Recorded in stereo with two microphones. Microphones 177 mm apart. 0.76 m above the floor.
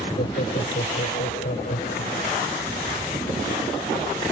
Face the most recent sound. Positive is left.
turn(degrees=80)